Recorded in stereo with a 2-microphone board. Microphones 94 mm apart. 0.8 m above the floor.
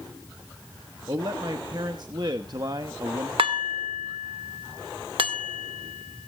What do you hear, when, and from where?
1.1 s a man speaking: 50° right (ahead or behind), 1.0 m
3.4 s dishes clattering: 65° right (ahead or behind), 1.4 m